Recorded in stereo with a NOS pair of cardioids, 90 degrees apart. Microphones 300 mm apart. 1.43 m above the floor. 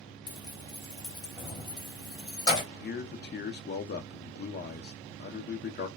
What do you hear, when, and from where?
0.3 s keys jangling: 15° left, 1.5 m
2.7 s a man speaking: 35° left, 0.8 m